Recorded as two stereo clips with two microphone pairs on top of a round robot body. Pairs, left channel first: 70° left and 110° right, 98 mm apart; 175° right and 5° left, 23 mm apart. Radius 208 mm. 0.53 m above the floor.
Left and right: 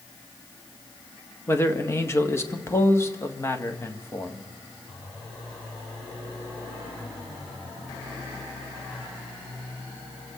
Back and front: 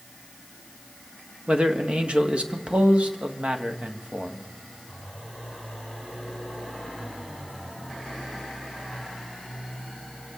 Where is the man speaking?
15° left, 1.9 m.